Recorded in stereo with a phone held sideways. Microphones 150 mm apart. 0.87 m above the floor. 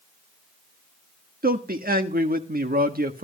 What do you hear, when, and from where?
1.4 s a man speaking: 70° right (ahead or behind), 1.3 m